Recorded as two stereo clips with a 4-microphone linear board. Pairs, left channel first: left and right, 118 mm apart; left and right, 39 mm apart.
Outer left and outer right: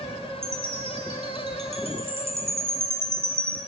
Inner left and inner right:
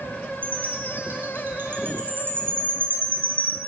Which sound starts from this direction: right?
A chime, at 0.4 s.